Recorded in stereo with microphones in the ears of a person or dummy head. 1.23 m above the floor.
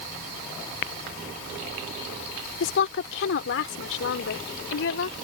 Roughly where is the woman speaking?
Left.